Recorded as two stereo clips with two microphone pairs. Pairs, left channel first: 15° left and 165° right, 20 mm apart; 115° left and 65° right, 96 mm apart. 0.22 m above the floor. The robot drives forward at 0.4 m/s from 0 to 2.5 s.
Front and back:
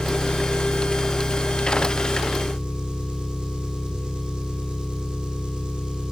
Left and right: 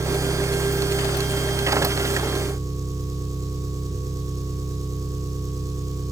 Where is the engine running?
110° right, 4.5 m; by 6.1 s 120° right, 5 m.